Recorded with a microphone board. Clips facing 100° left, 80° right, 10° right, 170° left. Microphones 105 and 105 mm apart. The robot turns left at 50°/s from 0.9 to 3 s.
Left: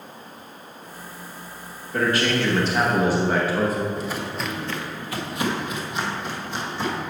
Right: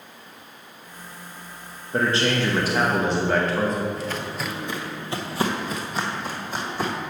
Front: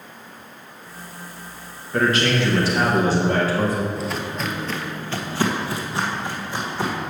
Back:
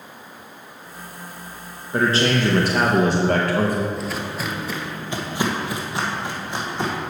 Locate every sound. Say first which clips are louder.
1.9 s a man speaking: even, even; 125° right, 1.0 m; by 3.9 s straight behind, 1.0 m
4.0 s footsteps: left 1 dB, front 1 dB; 75° left, 1.0 m; by 6.9 s 120° right, 2.5 m